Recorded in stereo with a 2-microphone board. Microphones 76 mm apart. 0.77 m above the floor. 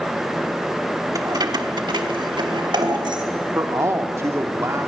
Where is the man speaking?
40° right (ahead or behind), 1.4 m.